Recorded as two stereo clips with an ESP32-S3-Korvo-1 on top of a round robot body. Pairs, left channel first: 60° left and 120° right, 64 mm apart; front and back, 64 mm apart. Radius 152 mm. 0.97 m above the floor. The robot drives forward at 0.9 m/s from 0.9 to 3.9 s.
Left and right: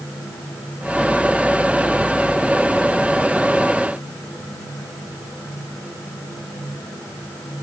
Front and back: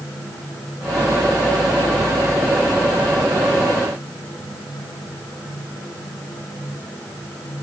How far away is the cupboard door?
I don't hear a cupboard door.